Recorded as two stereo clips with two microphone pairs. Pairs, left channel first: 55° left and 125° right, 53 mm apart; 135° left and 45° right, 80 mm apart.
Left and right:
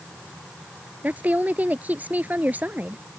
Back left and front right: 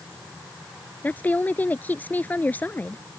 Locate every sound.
1.0 s a woman speaking: 165° right